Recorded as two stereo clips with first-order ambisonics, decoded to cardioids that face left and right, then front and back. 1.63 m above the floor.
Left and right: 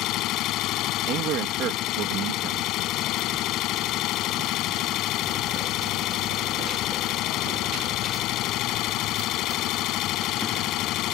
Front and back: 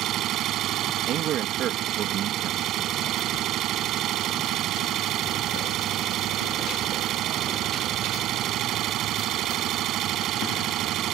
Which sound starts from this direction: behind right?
A man speaking, at 1.1 s.